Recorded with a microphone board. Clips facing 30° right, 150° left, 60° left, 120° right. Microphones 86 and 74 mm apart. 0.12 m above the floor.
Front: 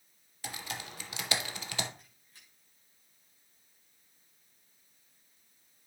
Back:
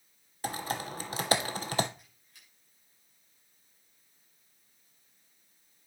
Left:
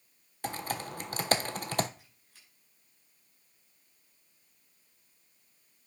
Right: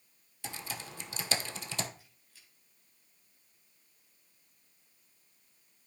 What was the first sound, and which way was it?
Typing on a keyboard, 100° left.